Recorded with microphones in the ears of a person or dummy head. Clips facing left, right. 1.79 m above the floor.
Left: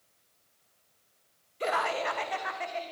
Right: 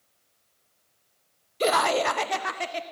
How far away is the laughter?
About 0.6 m.